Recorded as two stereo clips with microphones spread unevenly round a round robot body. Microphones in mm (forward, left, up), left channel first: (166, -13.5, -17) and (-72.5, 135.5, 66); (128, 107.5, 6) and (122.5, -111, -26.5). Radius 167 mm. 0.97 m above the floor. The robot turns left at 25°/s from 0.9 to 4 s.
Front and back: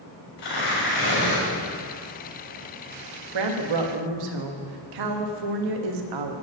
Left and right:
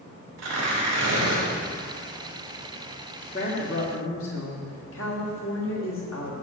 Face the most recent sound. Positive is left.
turn(degrees=145)